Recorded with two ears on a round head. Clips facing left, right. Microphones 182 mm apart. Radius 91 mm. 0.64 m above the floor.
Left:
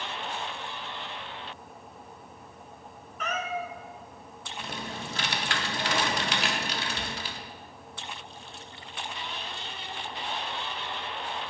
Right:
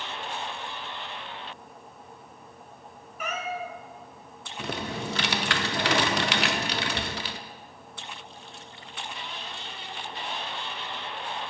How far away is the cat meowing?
About 0.9 m.